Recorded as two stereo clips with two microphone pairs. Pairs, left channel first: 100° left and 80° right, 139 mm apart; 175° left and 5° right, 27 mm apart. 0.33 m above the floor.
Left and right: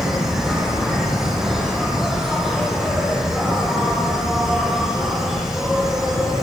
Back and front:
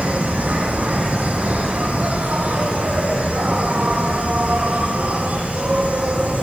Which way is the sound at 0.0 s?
5° left.